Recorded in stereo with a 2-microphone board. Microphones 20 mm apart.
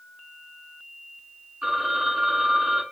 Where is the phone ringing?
60° right (ahead or behind), 1.7 m.